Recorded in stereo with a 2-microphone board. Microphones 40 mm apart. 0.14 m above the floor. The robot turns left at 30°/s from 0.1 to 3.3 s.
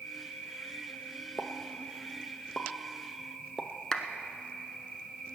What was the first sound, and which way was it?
An insect, 95° left.